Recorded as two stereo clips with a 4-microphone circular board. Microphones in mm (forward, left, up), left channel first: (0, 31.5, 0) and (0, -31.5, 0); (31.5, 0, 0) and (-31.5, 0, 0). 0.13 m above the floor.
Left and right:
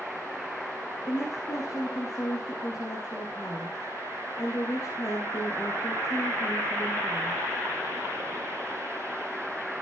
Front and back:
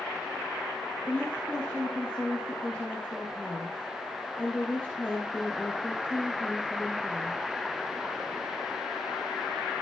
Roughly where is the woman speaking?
Left.